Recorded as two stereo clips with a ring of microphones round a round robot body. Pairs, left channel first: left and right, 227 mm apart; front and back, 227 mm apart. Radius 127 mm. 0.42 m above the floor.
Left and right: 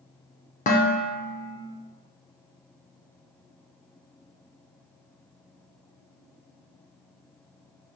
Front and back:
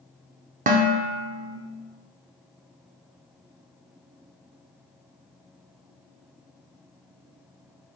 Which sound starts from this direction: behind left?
Dishes clattering, at 0.7 s.